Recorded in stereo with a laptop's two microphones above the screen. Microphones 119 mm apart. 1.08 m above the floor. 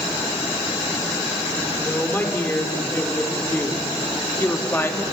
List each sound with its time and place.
1.8 s a woman speaking: 15° left (ahead or behind), 4 m; by 5.0 s 20° left (ahead or behind), 2.5 m